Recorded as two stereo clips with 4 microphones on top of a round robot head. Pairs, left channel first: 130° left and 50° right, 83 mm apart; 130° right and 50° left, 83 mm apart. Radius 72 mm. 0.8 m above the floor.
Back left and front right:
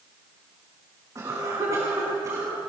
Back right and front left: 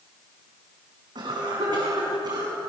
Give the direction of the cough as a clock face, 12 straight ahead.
12 o'clock.